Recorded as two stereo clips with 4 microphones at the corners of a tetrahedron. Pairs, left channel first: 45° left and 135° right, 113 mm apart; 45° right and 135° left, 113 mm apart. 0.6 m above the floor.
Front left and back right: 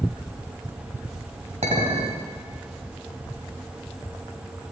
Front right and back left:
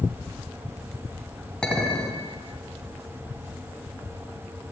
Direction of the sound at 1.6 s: 125° right.